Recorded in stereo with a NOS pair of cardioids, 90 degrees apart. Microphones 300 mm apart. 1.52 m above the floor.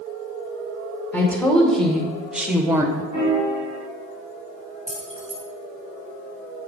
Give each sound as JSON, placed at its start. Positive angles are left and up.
{"t": 1.1, "sound": "a woman speaking", "azimuth_deg": 5, "distance_m": 1.9}
{"t": 3.1, "sound": "a piano", "azimuth_deg": 25, "distance_m": 3.0}
{"t": 4.9, "sound": "keys jangling", "azimuth_deg": -25, "distance_m": 2.0}